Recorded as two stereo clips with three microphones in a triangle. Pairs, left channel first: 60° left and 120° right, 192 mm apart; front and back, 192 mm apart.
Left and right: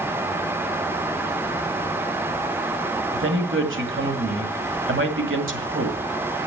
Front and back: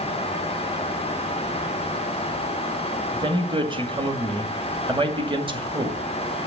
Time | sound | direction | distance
3.1 | a man speaking | 115° right | 2 m